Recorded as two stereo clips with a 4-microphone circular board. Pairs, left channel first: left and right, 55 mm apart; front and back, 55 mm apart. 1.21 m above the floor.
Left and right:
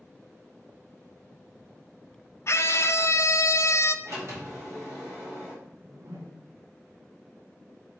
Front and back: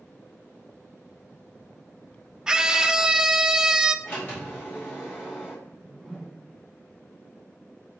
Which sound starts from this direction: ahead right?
A sliding door, at 4.0 s.